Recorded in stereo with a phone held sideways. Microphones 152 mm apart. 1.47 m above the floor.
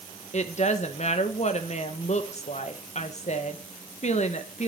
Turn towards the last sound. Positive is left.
turn(degrees=50)  # may be behind; listen again after turning